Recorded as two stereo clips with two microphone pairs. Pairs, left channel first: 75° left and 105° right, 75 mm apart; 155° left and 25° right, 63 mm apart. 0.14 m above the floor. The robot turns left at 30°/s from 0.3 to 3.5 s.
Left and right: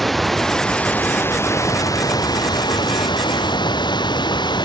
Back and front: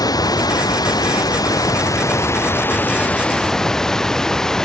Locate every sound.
0.0 s running water: 165° left; by 4.7 s 70° left